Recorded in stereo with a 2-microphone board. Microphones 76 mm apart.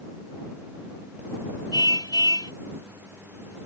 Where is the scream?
I don't hear a scream.